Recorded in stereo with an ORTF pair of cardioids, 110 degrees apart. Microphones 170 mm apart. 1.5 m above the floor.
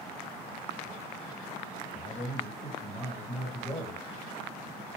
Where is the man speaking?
20° left, 1.8 m.